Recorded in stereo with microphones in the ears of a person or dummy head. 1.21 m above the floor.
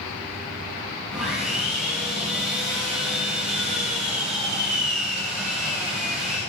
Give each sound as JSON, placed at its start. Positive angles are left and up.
{"t": 1.1, "sound": "sawing", "side_deg": 0, "distance_m": 6.0}